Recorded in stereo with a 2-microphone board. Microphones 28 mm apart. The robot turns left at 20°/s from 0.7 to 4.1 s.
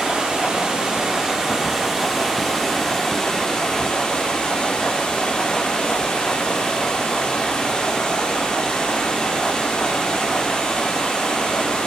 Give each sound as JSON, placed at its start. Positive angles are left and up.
{"t": 0.0, "sound": "running water", "azimuth_deg": -145, "distance_m": 1.7}